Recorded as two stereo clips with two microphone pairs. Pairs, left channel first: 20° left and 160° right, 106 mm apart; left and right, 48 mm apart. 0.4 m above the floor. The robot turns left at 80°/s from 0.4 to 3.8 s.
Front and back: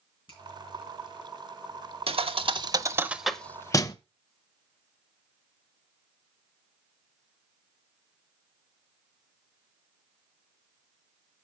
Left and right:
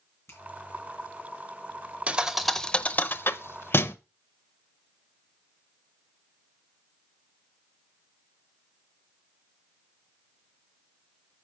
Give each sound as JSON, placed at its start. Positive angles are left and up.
{"t": 0.3, "sound": "a finger snap", "azimuth_deg": 60, "distance_m": 4.5}
{"t": 2.1, "sound": "a thud", "azimuth_deg": -150, "distance_m": 0.7}